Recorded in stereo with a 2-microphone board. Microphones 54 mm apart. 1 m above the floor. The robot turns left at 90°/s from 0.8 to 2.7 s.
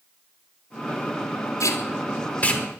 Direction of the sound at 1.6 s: 65° left (ahead or behind).